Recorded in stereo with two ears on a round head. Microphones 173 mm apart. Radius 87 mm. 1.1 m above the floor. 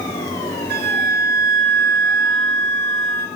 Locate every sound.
0.7 s a flute: 50° right (ahead or behind), 0.8 m